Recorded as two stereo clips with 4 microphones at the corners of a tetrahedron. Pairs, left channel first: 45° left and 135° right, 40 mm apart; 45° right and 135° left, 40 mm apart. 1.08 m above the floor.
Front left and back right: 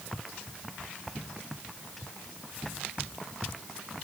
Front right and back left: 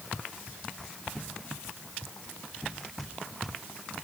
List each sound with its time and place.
Only background noise.